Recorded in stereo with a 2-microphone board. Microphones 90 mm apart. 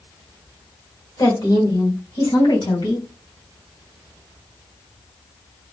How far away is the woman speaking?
About 1.7 m.